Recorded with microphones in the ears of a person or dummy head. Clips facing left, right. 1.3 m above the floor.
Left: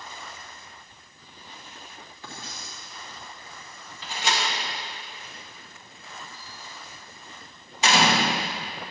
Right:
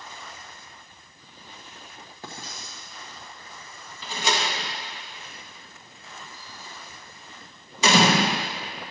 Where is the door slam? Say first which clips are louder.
Right 2 dB; 85° right, 1.0 m.